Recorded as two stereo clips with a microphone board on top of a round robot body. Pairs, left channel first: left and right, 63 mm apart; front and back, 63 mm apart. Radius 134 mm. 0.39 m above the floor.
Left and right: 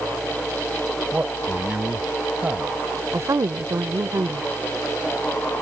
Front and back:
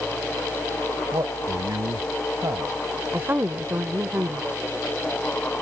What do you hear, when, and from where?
1.1 s a man speaking: 155° right
3.1 s a woman speaking: 125° right